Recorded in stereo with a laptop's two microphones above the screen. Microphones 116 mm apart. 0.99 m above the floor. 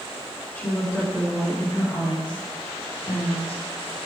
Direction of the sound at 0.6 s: 20° left (ahead or behind).